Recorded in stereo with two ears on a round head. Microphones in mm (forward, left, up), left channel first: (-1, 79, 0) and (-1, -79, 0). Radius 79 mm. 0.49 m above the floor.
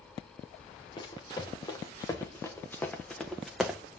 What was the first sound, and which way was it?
Running footsteps, 25° left (ahead or behind).